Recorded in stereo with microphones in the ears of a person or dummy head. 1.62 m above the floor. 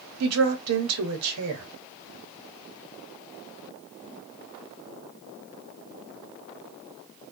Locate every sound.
0.2 s a woman speaking: 85° right, 0.9 m